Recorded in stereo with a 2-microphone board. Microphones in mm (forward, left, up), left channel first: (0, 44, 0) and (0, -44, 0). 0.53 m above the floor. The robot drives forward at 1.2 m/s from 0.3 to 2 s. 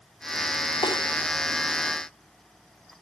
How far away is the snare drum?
About 3 m.